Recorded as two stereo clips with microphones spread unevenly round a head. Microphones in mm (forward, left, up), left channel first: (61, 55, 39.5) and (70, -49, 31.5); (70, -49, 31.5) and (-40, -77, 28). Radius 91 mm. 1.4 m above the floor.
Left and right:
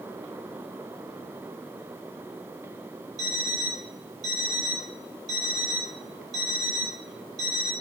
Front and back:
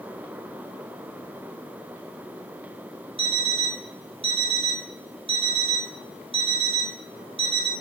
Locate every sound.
3.2 s an alarm clock: 135° right, 1.9 m